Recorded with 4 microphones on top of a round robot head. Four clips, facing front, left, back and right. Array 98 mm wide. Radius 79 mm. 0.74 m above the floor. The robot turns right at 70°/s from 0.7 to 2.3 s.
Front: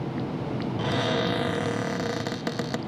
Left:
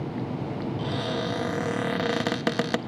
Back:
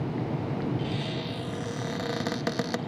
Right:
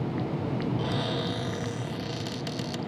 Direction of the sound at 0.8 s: 10° right.